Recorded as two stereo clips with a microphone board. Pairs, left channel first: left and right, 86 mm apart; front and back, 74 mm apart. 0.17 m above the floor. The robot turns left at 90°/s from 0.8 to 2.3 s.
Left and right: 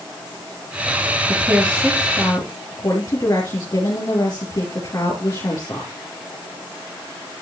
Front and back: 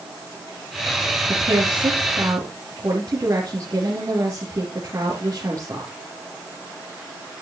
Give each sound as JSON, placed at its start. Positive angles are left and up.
{"t": 1.3, "sound": "a woman speaking", "azimuth_deg": -135, "distance_m": 3.5}